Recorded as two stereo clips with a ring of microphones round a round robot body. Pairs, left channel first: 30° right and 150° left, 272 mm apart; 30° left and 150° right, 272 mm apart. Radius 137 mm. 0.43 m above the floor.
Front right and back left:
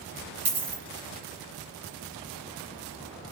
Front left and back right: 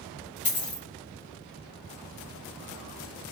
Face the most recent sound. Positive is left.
turn(degrees=95)